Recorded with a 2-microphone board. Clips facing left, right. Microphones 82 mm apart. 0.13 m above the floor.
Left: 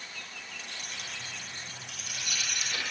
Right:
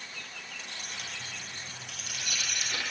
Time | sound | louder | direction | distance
0.6 | keys jangling | right 1 dB | 40° right (ahead or behind) | 2 m